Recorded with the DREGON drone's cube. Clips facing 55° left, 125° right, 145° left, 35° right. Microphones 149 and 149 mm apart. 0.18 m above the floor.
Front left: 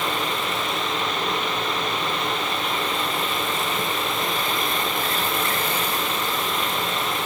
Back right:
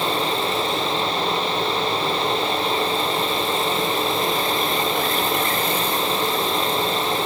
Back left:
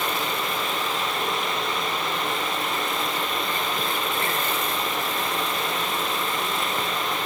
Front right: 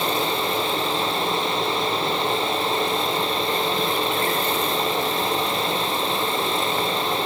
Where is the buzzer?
I don't hear a buzzer.